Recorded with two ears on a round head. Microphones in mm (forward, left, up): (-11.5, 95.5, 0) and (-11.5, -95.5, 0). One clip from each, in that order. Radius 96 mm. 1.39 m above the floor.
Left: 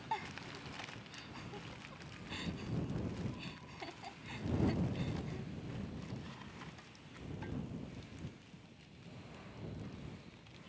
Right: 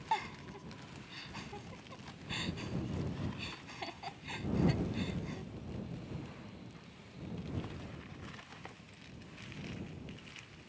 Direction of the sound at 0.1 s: 20° right (ahead or behind).